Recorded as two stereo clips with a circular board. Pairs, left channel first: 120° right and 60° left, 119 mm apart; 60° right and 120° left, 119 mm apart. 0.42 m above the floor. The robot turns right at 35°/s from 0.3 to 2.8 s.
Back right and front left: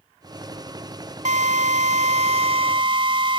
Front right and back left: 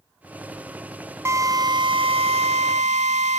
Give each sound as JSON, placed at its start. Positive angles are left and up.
{"t": 1.2, "sound": "a drill", "azimuth_deg": 55}